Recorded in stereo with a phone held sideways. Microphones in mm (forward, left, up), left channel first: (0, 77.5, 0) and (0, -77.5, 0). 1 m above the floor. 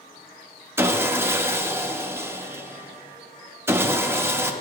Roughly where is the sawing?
Centre.